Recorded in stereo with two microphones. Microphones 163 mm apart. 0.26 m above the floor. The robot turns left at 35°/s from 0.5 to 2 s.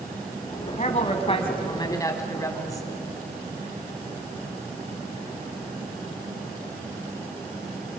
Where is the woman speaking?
70° left, 2 m; by 2.9 s 25° left, 2 m.